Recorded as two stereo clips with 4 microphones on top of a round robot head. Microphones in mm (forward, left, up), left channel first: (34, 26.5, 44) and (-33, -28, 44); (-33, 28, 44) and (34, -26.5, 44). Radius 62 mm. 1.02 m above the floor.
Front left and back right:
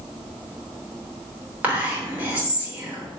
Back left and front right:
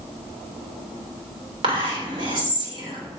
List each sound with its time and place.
1.6 s whispering: 70° right, 3.5 m